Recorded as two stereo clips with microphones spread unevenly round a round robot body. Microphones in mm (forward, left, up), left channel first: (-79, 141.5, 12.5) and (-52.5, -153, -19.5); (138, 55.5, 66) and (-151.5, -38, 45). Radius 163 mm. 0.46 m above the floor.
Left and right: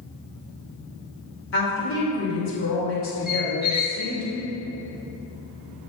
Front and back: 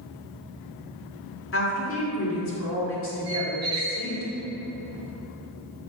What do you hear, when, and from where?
1.5 s a woman speaking: 55° left, 1.9 m
3.3 s a squeak: 160° left, 1.0 m